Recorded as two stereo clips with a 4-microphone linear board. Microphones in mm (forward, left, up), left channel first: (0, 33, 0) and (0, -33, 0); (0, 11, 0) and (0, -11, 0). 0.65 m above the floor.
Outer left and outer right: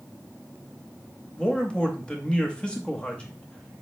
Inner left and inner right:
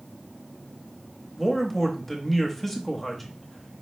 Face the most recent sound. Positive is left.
turn(degrees=15)  # may be behind; listen again after turning